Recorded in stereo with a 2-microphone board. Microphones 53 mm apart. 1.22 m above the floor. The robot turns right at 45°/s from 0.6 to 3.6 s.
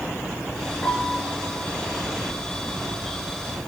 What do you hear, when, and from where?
0.8 s a piano: 25° left (ahead or behind), 2.5 m; by 1.3 s 5° left (ahead or behind), 2.5 m